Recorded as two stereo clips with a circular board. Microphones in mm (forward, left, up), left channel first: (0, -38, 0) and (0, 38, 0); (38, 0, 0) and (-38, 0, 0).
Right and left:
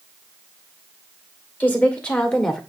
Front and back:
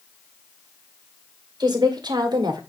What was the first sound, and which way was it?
A woman speaking, 160° right.